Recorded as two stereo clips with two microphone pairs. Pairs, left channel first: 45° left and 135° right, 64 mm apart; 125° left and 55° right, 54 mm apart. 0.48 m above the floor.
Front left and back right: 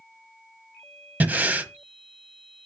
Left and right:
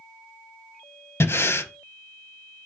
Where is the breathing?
165° left, 1.1 m.